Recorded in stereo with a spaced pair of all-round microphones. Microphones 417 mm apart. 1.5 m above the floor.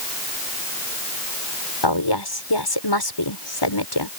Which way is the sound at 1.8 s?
75° left (ahead or behind).